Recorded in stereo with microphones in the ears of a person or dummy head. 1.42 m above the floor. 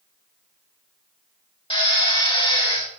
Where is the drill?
25° left (ahead or behind), 3 m.